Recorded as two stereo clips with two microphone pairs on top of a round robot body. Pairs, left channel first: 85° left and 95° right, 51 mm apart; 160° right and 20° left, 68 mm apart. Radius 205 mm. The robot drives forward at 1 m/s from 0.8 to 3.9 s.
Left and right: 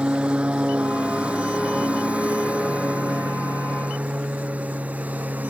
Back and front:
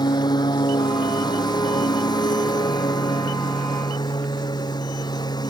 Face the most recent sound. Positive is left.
turn(degrees=-150)